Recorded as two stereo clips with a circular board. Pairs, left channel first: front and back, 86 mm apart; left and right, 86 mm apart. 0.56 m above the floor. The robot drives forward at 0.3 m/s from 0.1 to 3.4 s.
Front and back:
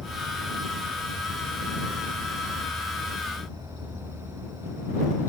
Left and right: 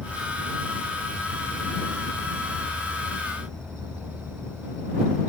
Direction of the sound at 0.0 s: 165° left.